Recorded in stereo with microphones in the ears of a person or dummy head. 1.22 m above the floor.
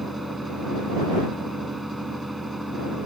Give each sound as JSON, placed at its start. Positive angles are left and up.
{"t": 0.0, "sound": "a fan", "side_deg": 0}